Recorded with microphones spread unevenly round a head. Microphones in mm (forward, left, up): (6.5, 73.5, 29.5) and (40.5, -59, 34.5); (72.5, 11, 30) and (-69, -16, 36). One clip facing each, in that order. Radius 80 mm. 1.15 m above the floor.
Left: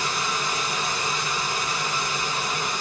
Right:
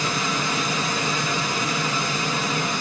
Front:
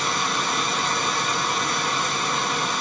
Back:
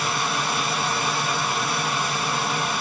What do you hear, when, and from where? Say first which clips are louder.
0.0 s a machine running: right 3 dB, even; 80° right, 0.8 m